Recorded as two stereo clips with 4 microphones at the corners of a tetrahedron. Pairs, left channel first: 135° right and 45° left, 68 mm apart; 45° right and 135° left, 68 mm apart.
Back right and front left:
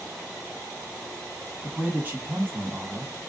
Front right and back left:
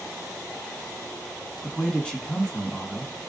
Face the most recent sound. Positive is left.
turn(degrees=20)